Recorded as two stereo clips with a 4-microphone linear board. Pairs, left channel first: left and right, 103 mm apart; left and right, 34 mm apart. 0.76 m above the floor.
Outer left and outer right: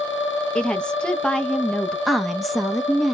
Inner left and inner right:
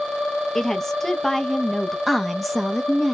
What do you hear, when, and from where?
0.6 s a woman speaking: 10° left (ahead or behind), 0.5 m
2.1 s a woman speaking: centre (ahead or behind), 0.7 m